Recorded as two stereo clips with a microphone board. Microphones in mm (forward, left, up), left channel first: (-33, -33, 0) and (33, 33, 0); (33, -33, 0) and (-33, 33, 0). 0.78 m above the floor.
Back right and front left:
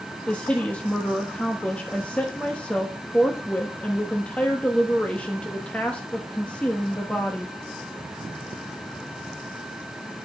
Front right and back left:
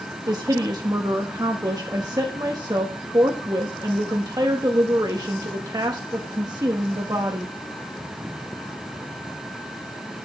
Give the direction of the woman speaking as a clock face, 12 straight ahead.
7 o'clock.